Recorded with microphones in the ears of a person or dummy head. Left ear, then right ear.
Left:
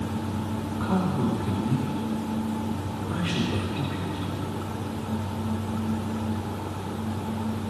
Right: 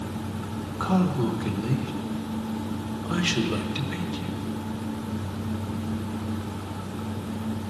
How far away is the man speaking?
About 1.0 m.